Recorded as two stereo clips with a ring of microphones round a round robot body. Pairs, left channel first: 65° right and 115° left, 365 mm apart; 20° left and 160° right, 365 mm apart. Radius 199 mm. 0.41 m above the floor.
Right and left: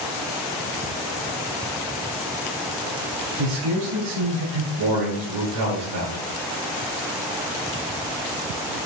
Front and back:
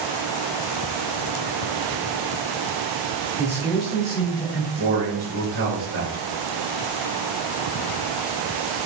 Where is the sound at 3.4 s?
115° left, 5.5 m; by 4.7 s 110° left, 5 m.